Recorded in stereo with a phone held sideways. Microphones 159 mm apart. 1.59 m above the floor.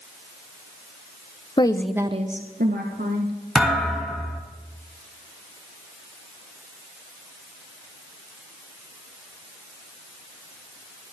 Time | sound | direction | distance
1.6 | a woman speaking | 30° left (ahead or behind) | 0.9 m
3.5 | a thud | centre (ahead or behind) | 2.5 m